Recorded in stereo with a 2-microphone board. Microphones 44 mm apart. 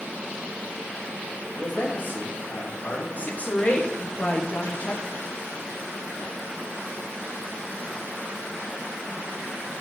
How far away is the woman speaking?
About 1.2 m.